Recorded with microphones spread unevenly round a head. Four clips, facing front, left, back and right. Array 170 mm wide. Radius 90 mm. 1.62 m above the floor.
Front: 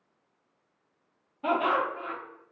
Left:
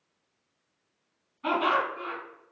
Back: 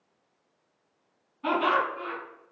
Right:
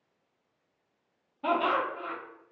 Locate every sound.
1.4 s laughter: 95° right, 1.1 m